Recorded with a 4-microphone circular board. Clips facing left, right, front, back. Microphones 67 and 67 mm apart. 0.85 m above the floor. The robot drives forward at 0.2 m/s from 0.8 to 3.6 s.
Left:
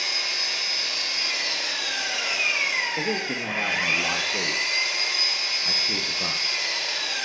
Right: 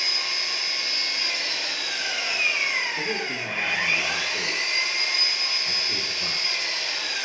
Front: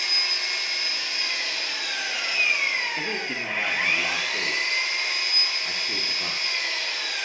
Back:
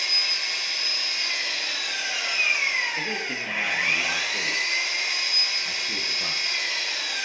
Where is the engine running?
85° left, 4 m; by 7.2 s 95° left, 4 m.